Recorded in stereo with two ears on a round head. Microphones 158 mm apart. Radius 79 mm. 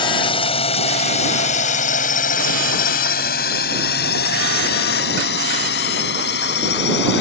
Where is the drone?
30° left (ahead or behind); by 7.2 s 70° left (ahead or behind).